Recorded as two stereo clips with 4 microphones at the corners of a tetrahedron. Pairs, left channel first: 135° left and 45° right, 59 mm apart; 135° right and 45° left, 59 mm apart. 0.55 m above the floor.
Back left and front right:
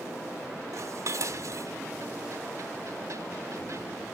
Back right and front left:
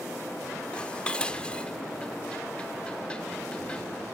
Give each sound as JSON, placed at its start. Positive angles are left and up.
{"t": 0.7, "sound": "dishes clattering", "azimuth_deg": -65, "distance_m": 1.0}